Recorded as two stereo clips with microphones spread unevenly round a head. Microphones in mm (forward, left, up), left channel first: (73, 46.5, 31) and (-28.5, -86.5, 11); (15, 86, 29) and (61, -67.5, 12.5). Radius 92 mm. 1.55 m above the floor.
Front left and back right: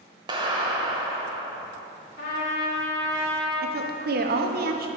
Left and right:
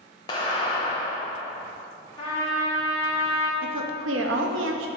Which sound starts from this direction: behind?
A clap, at 0.3 s.